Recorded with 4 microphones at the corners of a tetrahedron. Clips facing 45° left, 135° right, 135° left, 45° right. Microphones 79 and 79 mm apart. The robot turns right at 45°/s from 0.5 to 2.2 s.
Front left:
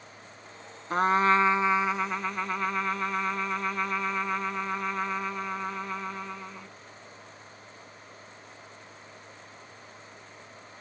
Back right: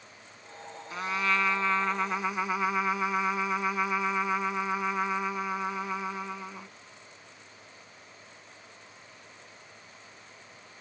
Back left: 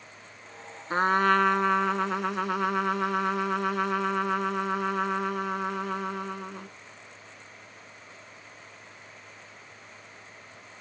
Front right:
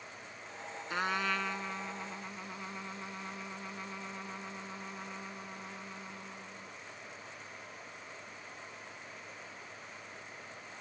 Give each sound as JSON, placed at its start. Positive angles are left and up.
{"t": 0.9, "sound": "a trumpet", "azimuth_deg": 85}